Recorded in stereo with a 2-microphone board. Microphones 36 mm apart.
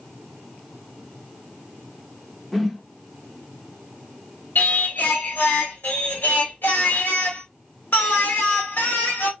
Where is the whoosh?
5° left (ahead or behind), 0.6 m.